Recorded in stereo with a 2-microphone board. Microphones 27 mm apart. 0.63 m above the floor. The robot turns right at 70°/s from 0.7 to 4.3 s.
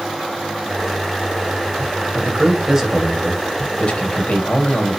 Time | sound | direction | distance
2.1 | a man speaking | 65° right | 3.5 m